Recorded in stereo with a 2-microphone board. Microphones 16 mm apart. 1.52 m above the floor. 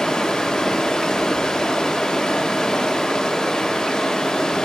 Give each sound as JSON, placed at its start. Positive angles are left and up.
{"t": 0.0, "sound": "running water", "side_deg": 70, "distance_m": 1.4}